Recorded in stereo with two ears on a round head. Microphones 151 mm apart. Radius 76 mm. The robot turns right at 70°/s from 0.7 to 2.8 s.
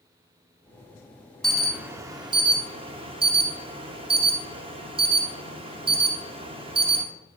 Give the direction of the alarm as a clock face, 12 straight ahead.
6 o'clock.